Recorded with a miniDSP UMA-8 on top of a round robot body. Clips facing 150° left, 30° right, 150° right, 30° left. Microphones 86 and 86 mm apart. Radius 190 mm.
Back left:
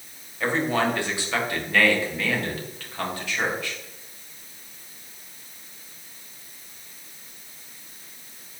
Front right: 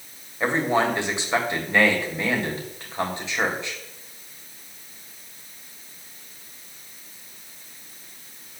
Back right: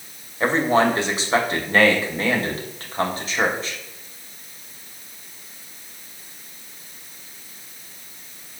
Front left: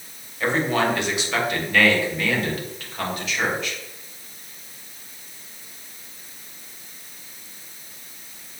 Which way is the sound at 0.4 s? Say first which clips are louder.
Front right 2 dB, back right 3 dB; 95° right.